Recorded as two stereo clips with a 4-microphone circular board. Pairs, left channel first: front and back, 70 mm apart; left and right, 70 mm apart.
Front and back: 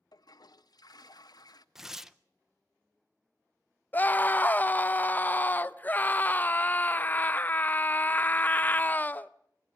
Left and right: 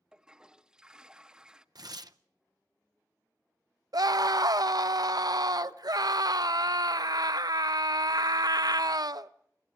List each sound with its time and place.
0.1 s a toilet flushing: 10° right, 0.6 m
1.8 s tearing paper: 95° right, 0.6 m
3.9 s a scream: 65° right, 0.6 m